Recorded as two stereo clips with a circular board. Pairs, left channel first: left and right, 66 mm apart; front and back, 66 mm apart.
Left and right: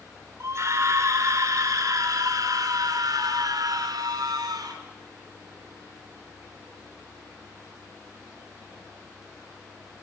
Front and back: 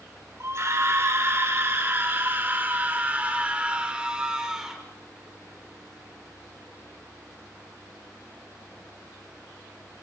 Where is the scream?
135° right, 6.5 m; by 4.8 s 100° right, 6 m.